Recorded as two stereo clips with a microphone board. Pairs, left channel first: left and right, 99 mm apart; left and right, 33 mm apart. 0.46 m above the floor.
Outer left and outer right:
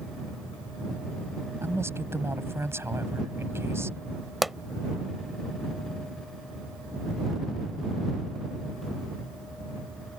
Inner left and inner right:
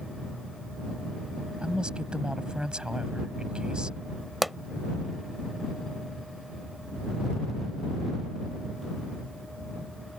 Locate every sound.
1.6 s a woman speaking: 25° right (ahead or behind)
4.4 s a pop: centre (ahead or behind)